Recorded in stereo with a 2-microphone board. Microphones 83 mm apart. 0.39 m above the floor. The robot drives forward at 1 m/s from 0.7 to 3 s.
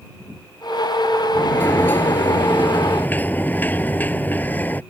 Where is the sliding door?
25° left (ahead or behind); by 4.8 s 20° left (ahead or behind).